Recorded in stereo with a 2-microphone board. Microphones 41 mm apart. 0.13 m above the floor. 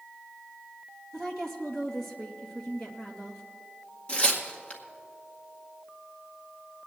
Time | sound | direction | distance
1.1 | a woman speaking | 5° left (ahead or behind) | 2.5 m
4.1 | tearing paper | 25° left (ahead or behind) | 1.9 m